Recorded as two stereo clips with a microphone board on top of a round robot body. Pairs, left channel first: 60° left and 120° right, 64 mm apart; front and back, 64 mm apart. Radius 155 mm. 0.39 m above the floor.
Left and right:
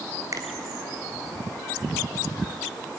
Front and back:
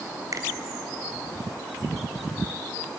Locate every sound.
0.3 s a finger snap: 150° right, 2.5 m